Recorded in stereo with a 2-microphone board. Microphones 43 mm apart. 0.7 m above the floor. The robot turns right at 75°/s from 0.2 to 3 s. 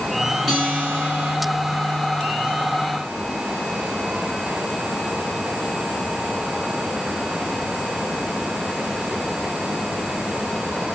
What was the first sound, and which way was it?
A guitar, 170° left.